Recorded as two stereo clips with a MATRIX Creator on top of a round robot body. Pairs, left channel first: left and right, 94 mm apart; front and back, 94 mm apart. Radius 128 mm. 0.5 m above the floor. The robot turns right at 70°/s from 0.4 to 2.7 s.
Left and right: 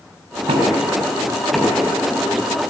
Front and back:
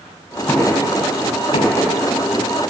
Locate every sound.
0.5 s knocking: 70° right, 5 m; by 1.8 s 25° left, 5 m